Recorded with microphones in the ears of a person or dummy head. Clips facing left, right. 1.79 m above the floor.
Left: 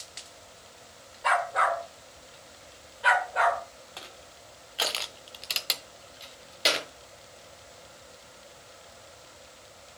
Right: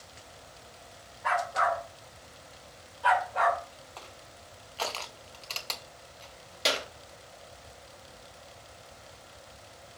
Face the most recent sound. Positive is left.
turn(degrees=5)  # may be behind; listen again after turning